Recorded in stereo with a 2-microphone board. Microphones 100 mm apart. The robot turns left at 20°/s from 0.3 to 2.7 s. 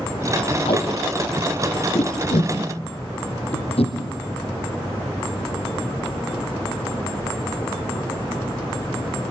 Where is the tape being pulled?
65° left (ahead or behind), 4.5 m; by 4.0 s 75° left (ahead or behind), 4.5 m.